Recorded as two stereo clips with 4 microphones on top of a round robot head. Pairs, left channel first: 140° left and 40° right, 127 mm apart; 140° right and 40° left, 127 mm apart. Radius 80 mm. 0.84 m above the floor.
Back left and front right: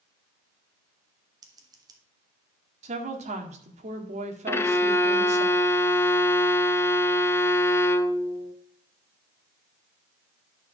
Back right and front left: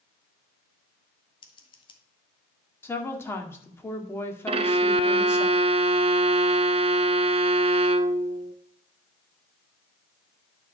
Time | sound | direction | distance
1.4 | scissors | 95° right | 1.8 m
2.8 | a woman speaking | 70° right | 1.9 m
4.5 | a violin | 70° left | 0.7 m